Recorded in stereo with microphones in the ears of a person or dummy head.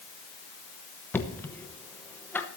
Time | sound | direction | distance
1.1 | knocking | 10° left (ahead or behind) | 1.0 m